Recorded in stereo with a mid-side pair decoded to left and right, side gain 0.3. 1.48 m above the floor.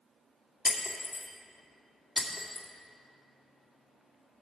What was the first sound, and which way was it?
Breaking glass, 40° left.